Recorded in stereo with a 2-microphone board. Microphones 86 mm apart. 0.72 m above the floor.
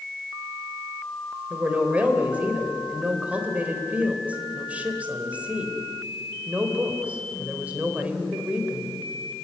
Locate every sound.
1.5 s a woman speaking: 15° right (ahead or behind), 3.5 m